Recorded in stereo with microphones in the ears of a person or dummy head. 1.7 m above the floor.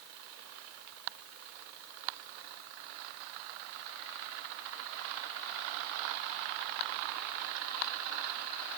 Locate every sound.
Only background noise.